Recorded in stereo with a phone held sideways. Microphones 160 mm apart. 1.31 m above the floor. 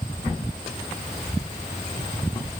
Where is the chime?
No chime in this recording.